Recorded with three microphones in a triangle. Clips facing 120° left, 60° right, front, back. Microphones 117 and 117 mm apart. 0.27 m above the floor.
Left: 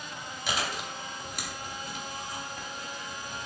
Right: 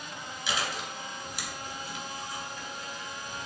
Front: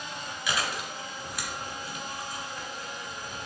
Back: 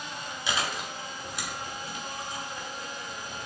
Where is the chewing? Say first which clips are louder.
Left 1 dB, even; 125° left, 0.9 m.